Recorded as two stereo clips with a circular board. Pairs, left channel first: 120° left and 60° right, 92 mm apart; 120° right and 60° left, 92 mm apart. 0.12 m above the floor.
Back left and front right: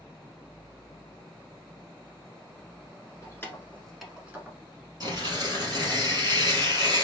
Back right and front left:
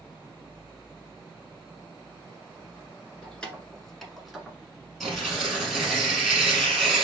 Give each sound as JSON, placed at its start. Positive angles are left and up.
{"t": 3.2, "sound": "keys jangling", "azimuth_deg": 165, "distance_m": 1.3}
{"t": 5.0, "sound": "tearing paper", "azimuth_deg": -25, "distance_m": 2.5}